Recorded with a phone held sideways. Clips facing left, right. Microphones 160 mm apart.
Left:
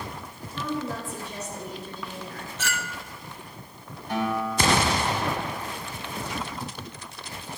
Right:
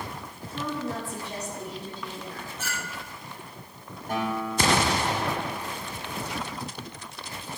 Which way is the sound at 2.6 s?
80° left.